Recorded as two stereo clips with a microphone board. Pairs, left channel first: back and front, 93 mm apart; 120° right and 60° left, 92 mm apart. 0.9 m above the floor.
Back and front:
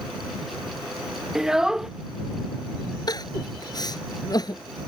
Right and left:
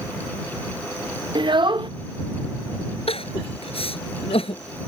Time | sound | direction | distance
1.4 | a child speaking | 85° left | ?
3.1 | crying | 135° right | ?